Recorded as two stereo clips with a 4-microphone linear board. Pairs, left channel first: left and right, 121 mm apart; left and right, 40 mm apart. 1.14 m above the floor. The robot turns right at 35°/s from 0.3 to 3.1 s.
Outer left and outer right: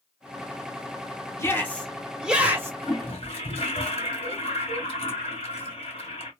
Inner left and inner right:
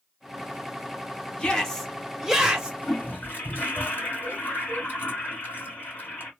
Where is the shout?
155° left, 1.0 m; by 2.7 s 160° right, 1.0 m.